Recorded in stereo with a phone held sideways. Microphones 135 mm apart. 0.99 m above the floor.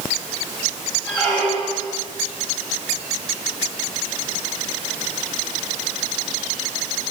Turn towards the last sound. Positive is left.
turn(degrees=10)  # may be behind; listen again after turning